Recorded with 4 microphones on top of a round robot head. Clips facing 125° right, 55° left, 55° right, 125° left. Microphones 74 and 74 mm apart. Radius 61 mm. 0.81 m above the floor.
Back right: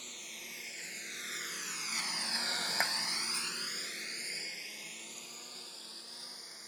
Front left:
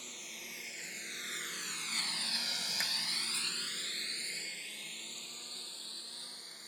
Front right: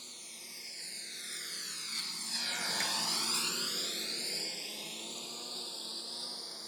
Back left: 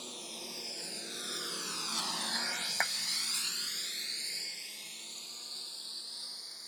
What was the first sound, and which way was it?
A lawn mower, 140° left.